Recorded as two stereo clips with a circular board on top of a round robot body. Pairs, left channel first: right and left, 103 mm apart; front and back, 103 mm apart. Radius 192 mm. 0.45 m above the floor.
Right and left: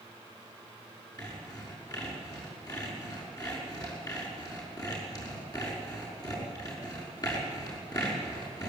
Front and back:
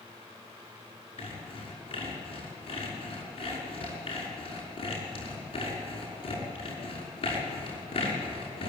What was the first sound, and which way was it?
Sawing, 35° right.